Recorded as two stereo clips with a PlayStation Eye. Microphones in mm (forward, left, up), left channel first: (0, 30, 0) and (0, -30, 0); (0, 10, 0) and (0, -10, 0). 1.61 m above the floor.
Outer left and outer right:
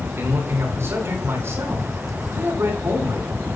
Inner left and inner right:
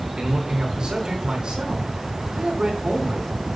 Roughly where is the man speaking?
Right.